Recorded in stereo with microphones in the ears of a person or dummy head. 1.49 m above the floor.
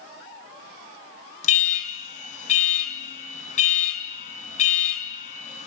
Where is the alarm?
40° left (ahead or behind), 3 m.